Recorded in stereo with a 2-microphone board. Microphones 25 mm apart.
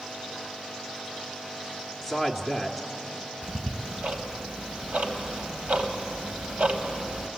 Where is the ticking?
65° right (ahead or behind), 1.6 m.